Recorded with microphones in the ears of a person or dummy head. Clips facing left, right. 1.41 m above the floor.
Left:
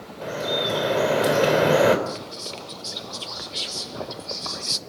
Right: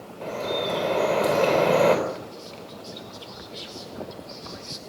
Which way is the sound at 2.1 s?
70° left (ahead or behind).